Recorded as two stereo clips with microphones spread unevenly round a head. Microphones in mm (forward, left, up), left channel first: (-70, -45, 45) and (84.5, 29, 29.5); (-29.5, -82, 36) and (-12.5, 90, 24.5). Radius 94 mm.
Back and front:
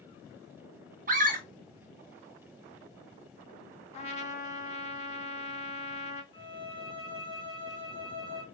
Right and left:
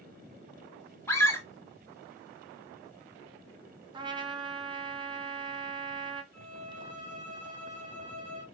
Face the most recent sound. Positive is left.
turn(degrees=-135)